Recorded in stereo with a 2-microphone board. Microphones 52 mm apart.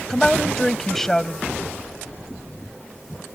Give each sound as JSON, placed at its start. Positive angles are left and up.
{"t": 0.1, "sound": "a woman speaking", "side_deg": 10}